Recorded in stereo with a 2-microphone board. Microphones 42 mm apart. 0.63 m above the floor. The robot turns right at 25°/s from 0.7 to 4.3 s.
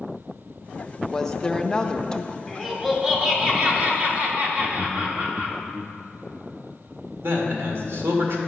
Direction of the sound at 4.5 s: 20° right (ahead or behind).